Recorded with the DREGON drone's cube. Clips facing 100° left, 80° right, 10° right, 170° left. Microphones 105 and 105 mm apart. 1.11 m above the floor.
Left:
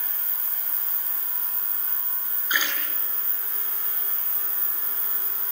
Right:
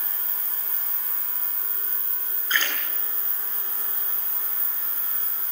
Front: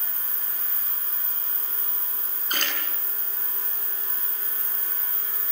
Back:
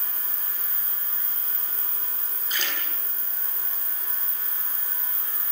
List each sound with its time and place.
2.5 s a splash: 25° left, 10 m